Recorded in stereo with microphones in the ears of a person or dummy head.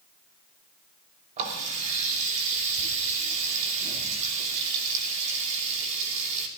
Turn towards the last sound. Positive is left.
turn(degrees=-40)  # may be behind; listen again after turning